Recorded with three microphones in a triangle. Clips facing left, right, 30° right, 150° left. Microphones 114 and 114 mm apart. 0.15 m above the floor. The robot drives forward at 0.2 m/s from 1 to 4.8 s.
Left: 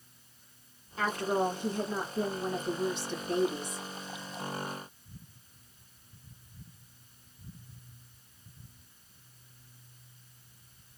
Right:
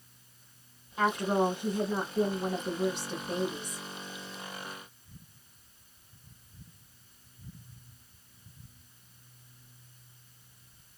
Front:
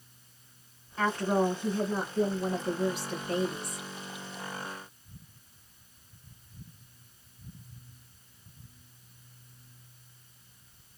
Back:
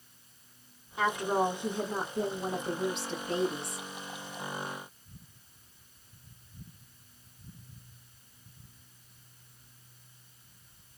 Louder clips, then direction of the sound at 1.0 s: Right 2 dB, front 1 dB; 150° right.